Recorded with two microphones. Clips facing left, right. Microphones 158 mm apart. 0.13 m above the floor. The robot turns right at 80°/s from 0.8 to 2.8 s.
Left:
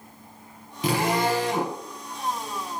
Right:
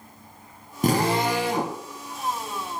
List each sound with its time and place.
0.8 s a drill: 55° right, 3 m; by 1.8 s 20° left, 3 m